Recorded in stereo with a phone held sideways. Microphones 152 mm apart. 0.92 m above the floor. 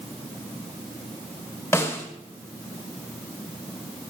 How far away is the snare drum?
About 2.5 m.